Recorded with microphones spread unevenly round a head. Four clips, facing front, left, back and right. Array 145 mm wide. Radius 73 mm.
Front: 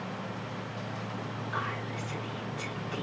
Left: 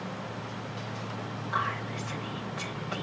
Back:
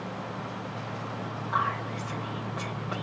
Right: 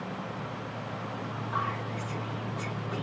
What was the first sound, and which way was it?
Whispering, 170° right.